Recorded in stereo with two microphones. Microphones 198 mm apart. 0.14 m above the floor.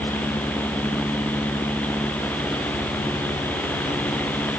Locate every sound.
Only background noise.